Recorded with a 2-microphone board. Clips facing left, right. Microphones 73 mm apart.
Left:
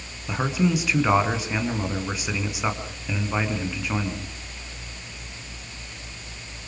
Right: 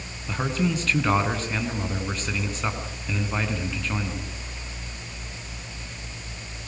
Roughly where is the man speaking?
Centre.